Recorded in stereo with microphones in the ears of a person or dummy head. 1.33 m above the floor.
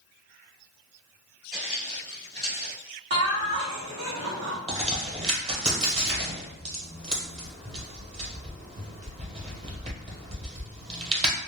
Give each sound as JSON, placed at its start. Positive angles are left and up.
{"t": 1.5, "sound": "footsteps", "side_deg": -5, "distance_m": 1.6}
{"t": 3.1, "sound": "laughter", "side_deg": -55, "distance_m": 0.7}
{"t": 4.7, "sound": "a crack", "side_deg": -25, "distance_m": 0.9}